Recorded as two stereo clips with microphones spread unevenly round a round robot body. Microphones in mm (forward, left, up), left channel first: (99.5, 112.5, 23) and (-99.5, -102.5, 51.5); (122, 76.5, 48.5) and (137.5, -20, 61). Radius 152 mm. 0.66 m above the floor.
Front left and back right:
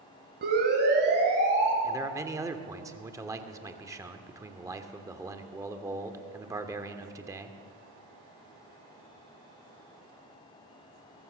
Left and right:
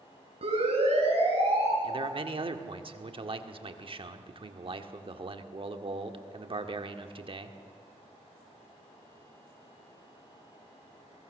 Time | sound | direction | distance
0.4 | a siren | 75° right | 8 m
1.8 | a man speaking | 50° right | 1.8 m